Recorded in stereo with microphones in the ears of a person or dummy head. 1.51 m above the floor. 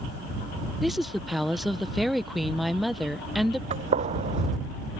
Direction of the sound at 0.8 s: 5° right (ahead or behind).